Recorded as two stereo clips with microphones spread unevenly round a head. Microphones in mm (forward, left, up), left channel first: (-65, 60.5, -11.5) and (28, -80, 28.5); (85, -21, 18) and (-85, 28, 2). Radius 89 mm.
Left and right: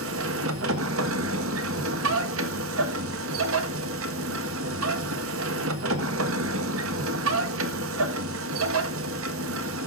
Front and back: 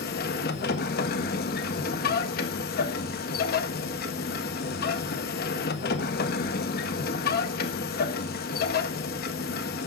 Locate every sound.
0.0 s a machine running: 55° right, 1.4 m